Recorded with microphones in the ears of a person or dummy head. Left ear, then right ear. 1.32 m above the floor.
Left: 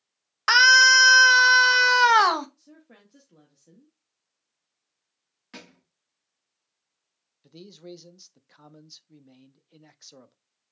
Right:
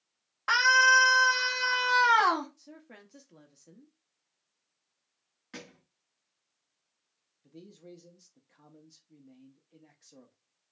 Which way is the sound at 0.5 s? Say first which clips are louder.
Left 6 dB; 80° left.